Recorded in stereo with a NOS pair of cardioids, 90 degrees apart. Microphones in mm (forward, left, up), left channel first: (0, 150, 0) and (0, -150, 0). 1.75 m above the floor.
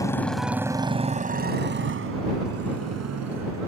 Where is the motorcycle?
10° left; by 3.7 s 65° right.